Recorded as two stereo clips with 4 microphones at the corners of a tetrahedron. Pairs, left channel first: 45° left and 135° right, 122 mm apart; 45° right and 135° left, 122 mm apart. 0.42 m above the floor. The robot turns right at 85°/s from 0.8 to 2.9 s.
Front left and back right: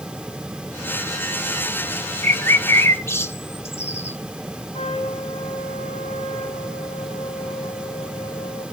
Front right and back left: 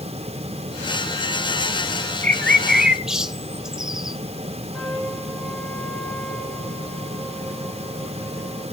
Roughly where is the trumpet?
Ahead left.